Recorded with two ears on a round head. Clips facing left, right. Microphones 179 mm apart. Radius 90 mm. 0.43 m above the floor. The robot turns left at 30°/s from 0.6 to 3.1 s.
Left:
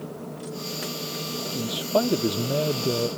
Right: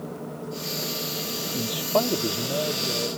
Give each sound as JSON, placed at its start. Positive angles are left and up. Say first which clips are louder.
{"t": 1.5, "sound": "a man speaking", "louder": "left 1 dB", "azimuth_deg": 180}